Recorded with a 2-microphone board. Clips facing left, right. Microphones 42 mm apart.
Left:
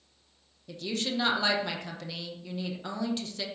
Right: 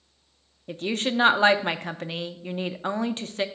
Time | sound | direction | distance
0.7 | a woman speaking | 40° right (ahead or behind) | 0.6 m